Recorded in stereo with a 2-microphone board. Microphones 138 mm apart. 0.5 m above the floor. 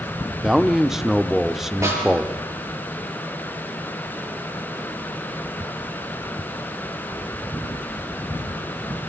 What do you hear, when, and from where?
0.4 s a man speaking: 5° right (ahead or behind), 0.9 m
1.8 s a snare drum: 20° right (ahead or behind), 6.5 m